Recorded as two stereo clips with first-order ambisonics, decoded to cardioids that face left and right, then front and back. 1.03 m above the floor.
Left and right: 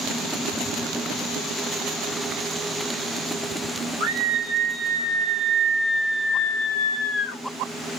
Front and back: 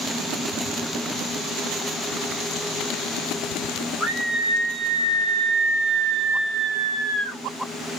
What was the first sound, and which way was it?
A scream, 110° right.